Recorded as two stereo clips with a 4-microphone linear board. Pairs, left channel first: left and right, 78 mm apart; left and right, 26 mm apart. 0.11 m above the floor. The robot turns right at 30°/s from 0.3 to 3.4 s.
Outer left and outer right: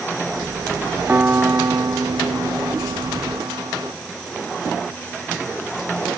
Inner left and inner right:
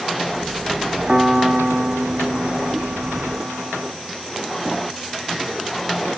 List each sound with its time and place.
1.1 s a piano: 155° right; by 3.9 s 85° right